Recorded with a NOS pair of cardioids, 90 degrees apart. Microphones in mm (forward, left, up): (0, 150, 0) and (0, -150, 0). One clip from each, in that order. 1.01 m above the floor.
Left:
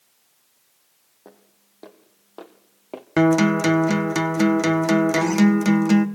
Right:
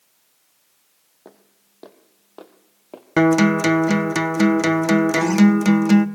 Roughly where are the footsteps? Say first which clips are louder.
Right 2 dB; ahead.